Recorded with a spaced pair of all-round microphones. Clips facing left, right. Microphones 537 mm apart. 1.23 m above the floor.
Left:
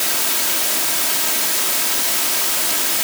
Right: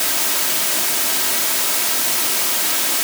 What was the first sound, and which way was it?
Only background noise.